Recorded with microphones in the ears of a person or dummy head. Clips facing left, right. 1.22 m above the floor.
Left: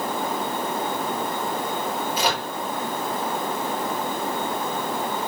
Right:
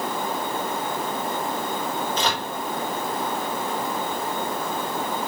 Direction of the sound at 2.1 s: 10° left (ahead or behind).